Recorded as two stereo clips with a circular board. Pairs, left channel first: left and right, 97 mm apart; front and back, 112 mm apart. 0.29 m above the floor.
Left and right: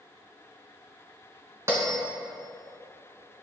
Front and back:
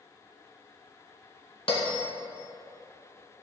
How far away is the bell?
About 1.8 m.